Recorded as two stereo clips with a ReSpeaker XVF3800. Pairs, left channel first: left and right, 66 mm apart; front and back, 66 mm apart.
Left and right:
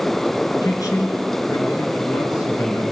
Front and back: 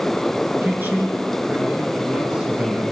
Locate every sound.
0.6 s a man speaking: 120° left, 4.5 m; by 2.8 s 110° left, 6.5 m